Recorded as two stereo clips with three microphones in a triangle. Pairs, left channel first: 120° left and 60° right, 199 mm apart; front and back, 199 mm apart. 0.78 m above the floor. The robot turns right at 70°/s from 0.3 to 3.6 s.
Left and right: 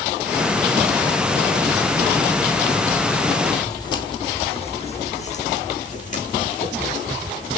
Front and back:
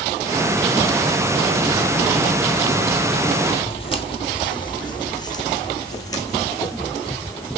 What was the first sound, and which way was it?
Footsteps, 55° left.